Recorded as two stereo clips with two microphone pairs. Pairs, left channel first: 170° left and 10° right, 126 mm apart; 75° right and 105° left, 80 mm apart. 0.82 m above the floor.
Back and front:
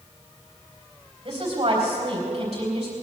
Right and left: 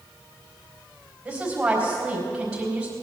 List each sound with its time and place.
1.2 s a woman speaking: 40° left, 4 m